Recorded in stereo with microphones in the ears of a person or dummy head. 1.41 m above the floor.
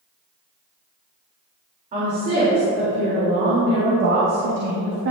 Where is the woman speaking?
40° right (ahead or behind), 3 m; by 5.1 s 65° right (ahead or behind), 1.5 m.